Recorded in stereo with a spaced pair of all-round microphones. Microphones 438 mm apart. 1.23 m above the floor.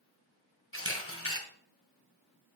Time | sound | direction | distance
0.7 | a camera shutter | 30° left (ahead or behind) | 2 m